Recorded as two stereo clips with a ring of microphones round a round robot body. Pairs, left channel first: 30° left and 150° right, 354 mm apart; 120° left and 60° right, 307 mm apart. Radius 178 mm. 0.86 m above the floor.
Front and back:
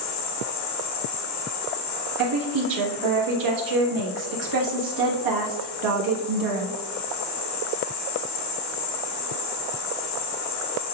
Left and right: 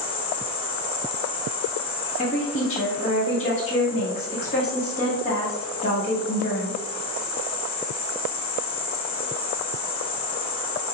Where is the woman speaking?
170° right, 1.2 m.